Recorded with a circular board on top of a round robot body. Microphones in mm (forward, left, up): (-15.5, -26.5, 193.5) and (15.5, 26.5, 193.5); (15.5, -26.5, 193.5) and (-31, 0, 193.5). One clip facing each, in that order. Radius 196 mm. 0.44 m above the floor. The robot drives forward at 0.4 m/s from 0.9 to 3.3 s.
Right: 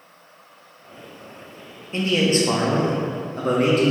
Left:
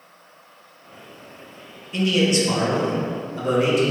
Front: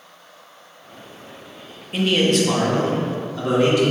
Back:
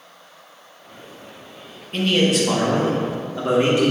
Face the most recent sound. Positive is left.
turn(degrees=-150)